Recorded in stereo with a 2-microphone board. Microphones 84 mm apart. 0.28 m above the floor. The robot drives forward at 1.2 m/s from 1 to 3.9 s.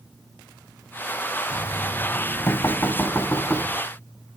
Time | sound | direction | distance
1.5 | knocking | 40° left (ahead or behind) | 1.2 m